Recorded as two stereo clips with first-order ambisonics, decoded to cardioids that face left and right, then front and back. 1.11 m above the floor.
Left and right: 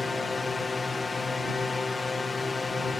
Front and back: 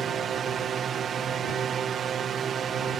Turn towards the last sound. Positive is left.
turn(degrees=150)